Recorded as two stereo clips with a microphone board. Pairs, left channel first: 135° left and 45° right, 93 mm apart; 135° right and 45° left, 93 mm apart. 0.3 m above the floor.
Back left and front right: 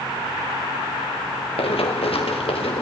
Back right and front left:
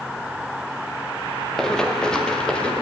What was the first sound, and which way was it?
Running footsteps, 140° left.